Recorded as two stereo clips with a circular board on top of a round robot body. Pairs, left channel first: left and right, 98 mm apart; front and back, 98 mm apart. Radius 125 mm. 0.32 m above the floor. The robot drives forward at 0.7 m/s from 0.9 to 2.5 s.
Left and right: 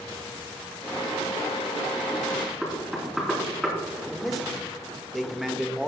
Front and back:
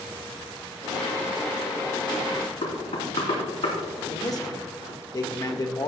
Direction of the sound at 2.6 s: Straight ahead.